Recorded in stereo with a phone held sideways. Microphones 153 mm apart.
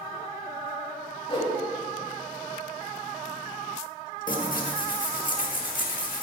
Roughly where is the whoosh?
Left.